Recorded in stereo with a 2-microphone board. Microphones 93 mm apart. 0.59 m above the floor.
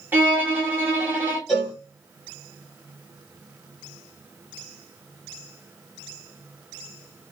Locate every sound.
0.1 s a violin: 20° right (ahead or behind), 1.6 m
1.5 s a cowbell: 10° right (ahead or behind), 3 m